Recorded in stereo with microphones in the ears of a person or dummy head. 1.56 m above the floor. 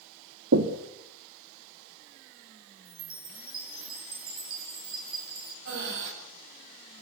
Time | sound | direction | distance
0.5 | knocking | 70° right (ahead or behind) | 1.9 m
2.9 | a chime | 30° right (ahead or behind) | 6 m
5.7 | breathing | 70° right (ahead or behind) | 7.5 m